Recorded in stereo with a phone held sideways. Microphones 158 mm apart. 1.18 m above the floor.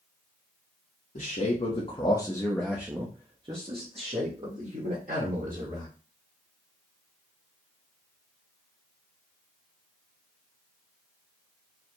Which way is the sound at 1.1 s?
60° left (ahead or behind).